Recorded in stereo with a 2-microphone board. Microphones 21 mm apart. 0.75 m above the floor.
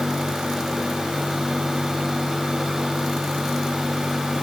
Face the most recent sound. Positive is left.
No sound to turn to.